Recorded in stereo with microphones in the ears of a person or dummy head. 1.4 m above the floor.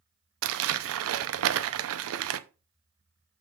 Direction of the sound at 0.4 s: 80° right.